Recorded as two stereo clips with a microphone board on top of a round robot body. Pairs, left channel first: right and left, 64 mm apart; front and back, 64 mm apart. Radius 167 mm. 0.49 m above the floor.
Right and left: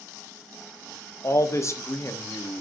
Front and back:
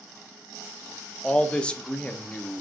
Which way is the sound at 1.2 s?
70° right.